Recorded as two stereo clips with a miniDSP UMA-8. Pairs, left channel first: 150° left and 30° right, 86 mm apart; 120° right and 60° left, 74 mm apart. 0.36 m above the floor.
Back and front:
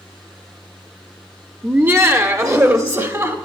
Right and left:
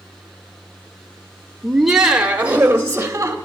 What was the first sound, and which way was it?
Laughter, 40° right.